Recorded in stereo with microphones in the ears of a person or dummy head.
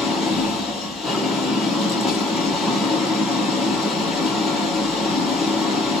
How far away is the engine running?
About 0.9 m.